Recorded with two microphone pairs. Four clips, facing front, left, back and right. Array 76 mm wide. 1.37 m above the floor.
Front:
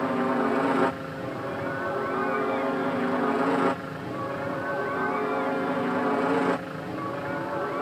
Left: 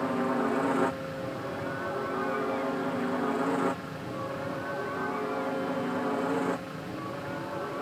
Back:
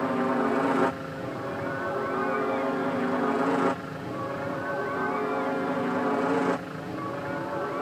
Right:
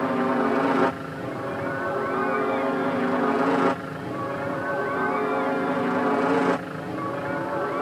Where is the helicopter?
85° right; by 7.8 s 75° right.